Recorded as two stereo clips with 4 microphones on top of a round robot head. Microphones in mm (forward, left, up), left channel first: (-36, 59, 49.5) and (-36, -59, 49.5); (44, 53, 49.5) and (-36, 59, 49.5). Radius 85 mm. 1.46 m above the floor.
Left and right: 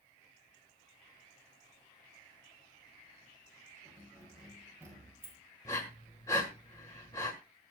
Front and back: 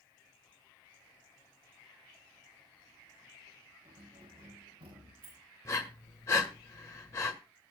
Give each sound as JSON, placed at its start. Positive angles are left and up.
{"t": 3.9, "sound": "keys jangling", "azimuth_deg": -165, "distance_m": 7.0}
{"t": 5.7, "sound": "breathing", "azimuth_deg": 25, "distance_m": 1.4}